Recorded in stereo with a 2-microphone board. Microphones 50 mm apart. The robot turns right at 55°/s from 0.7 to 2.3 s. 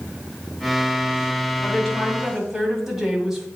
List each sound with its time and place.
1.6 s a woman speaking: 150° left, 1.9 m; by 3.5 s 175° right, 1.9 m